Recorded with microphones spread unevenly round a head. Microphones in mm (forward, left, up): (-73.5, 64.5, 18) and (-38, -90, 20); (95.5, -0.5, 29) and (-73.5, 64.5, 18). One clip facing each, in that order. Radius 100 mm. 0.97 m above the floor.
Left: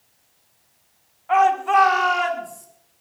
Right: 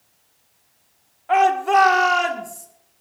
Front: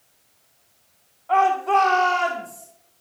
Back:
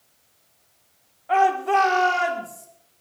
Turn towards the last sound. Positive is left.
turn(degrees=-115)